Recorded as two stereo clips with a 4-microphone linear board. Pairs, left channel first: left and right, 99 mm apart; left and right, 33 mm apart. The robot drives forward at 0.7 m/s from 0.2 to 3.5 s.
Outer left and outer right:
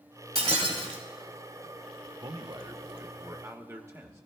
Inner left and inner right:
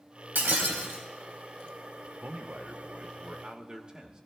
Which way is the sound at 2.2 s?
45° right (ahead or behind).